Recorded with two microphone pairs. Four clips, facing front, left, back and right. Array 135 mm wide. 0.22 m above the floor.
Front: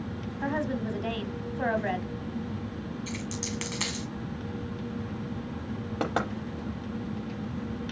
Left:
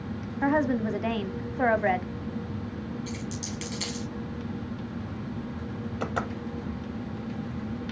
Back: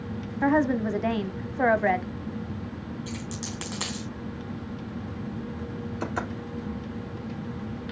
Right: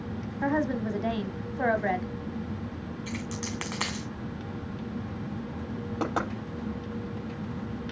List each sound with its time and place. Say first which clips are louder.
0.4 s a woman speaking: left 3 dB, back 8 dB; 160° left, 1.2 m
3.1 s a dropped coin: even, even; 95° right, 3.5 m
6.0 s knocking: right 2 dB, front 3 dB; 25° right, 5 m